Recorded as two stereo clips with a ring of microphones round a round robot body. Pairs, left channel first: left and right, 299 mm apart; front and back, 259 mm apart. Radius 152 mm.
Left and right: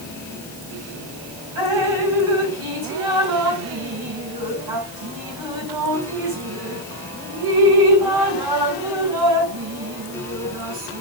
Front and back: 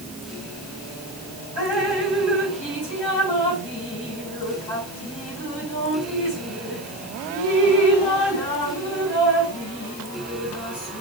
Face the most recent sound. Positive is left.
turn(degrees=-75)